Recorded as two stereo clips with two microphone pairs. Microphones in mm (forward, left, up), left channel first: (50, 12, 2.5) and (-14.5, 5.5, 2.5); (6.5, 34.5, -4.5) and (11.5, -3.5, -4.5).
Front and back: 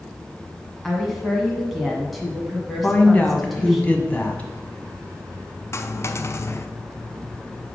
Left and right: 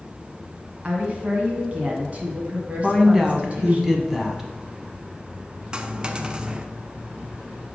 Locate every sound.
0.8 s a woman speaking: 80° right, 1.6 m
2.8 s a woman speaking: 20° right, 1.1 m
5.7 s a dropped coin: 20° right, 0.5 m